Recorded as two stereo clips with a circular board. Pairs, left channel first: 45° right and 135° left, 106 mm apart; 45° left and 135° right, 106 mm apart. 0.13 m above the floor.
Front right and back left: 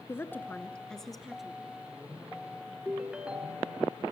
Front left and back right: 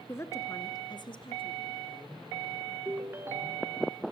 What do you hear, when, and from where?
0.1 s a woman speaking: straight ahead, 1.2 m; by 1.8 s 50° left, 1.8 m
2.9 s a ringtone: 160° right, 0.6 m